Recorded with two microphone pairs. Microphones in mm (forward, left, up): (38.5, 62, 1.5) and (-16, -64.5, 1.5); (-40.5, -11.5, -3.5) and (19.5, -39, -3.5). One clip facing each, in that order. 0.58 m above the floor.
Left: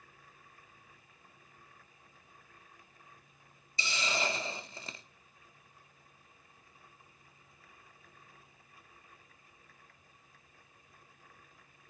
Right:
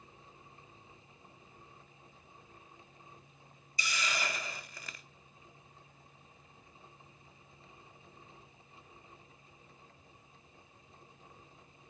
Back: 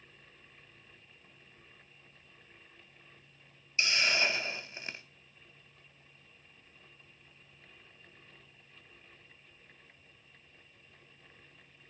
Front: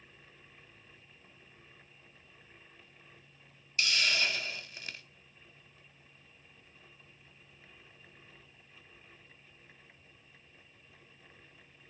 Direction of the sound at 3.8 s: 110° left.